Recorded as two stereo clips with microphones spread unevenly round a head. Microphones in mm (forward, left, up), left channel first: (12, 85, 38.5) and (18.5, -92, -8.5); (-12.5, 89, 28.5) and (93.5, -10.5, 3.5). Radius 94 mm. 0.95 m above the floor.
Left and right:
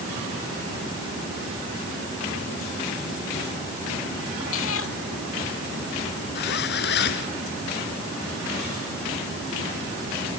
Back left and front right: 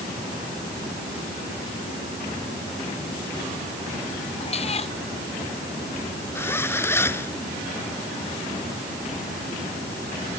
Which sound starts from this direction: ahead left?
A zipper, at 6.3 s.